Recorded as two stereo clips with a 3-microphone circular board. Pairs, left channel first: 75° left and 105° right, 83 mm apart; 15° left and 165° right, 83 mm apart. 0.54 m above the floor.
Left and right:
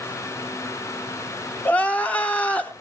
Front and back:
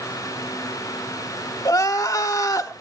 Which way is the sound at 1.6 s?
10° left.